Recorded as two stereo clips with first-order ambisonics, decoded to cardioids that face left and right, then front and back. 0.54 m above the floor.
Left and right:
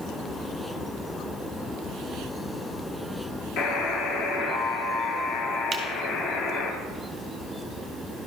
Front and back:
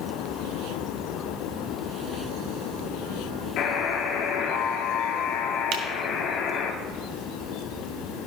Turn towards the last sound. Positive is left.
turn(degrees=-165)